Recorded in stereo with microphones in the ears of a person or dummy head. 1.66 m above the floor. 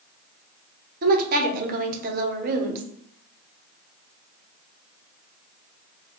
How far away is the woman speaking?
About 0.9 m.